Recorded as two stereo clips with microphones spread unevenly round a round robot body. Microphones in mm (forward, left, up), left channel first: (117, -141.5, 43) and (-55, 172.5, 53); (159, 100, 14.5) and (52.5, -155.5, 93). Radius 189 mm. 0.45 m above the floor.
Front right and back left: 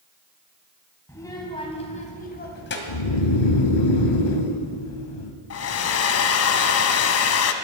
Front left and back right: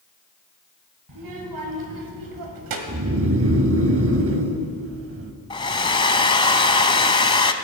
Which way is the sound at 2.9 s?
70° right.